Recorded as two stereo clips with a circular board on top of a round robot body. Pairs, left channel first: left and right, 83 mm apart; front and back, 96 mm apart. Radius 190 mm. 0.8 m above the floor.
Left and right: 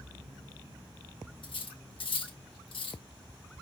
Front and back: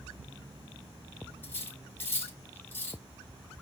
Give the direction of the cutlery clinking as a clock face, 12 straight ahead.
10 o'clock.